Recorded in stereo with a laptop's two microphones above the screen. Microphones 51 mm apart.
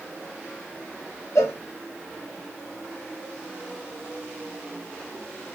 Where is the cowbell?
70° left (ahead or behind), 1.2 m.